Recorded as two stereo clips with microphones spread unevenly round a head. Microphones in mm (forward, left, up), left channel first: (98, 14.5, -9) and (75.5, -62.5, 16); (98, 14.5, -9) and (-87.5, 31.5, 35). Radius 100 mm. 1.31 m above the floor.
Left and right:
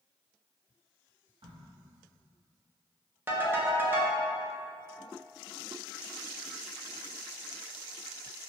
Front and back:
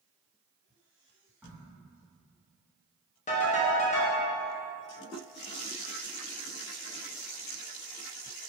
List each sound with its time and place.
1.4 s a crack: 100° right, 1.4 m
3.3 s a ringtone: 65° right, 0.8 m